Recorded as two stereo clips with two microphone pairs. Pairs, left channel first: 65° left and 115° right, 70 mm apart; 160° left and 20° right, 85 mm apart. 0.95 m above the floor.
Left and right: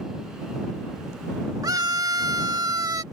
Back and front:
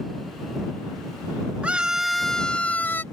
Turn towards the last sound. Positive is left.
turn(degrees=-140)